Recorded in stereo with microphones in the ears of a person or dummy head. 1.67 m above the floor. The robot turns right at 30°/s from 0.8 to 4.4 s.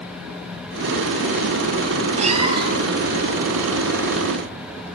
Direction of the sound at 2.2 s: 35° right (ahead or behind).